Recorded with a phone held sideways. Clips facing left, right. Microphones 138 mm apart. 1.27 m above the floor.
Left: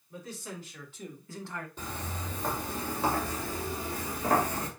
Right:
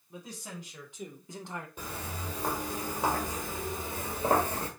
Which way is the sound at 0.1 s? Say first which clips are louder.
Left 2 dB; 15° right (ahead or behind).